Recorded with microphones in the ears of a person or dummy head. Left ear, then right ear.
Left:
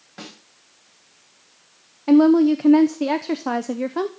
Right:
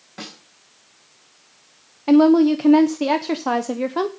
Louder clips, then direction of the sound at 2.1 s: Right 1 dB; 15° right (ahead or behind).